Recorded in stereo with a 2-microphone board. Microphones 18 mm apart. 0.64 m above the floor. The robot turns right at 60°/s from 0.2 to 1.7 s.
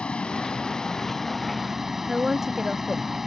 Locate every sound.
0.0 s a vehicle: 100° left; by 3.3 s 170° right
2.1 s a woman speaking: 25° right (ahead or behind)